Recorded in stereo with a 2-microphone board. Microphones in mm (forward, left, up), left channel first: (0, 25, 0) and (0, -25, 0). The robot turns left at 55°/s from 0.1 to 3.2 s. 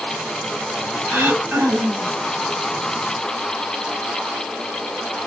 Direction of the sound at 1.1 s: 90° right.